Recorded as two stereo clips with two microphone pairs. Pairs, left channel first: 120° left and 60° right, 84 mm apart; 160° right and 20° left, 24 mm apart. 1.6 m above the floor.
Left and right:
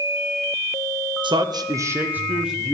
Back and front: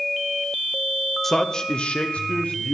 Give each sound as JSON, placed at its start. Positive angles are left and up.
{"t": 1.2, "sound": "a man speaking", "azimuth_deg": -80, "distance_m": 0.7}